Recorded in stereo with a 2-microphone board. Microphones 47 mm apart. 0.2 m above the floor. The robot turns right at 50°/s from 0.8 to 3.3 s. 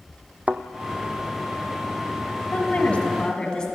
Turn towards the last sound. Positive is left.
turn(degrees=150)